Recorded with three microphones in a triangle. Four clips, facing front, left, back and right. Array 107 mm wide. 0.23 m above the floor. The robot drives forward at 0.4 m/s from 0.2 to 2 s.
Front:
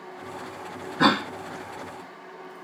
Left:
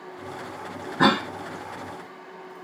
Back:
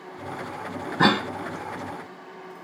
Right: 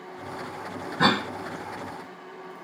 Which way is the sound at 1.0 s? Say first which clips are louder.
Left 3 dB, even; 140° left.